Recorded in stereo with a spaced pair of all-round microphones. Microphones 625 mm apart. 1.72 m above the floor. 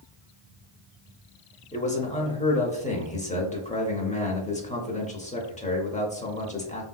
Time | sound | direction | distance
1.7 | a man speaking | 15° left (ahead or behind) | 0.5 m